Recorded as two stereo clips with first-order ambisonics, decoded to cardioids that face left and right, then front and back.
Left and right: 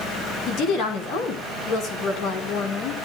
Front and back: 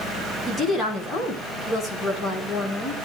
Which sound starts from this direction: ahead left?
A woman speaking, at 0.5 s.